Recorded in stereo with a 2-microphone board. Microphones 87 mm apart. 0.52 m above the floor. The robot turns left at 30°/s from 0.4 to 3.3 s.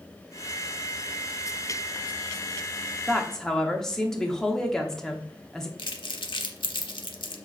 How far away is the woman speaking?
About 0.7 m.